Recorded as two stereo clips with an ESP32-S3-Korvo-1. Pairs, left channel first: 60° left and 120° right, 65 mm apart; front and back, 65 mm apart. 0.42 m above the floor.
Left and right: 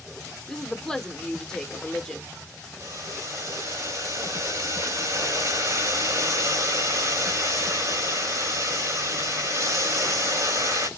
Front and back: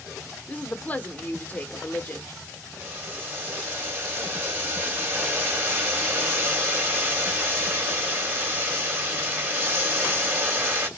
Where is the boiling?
125° right, 2 m.